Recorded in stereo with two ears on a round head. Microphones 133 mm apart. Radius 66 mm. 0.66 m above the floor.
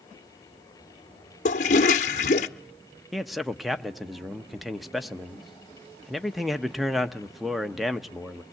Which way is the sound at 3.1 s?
Centre (ahead or behind).